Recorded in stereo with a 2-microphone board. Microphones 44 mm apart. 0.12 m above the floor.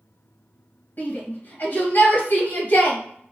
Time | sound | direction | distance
1.0 | a shout | 50° left (ahead or behind) | 2 m